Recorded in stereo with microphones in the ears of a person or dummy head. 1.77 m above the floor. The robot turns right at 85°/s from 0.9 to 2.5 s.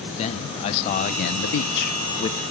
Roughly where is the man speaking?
Ahead left.